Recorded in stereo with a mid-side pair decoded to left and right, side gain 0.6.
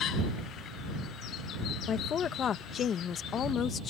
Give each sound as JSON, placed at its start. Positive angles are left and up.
{"t": 1.9, "sound": "a woman speaking", "azimuth_deg": 45}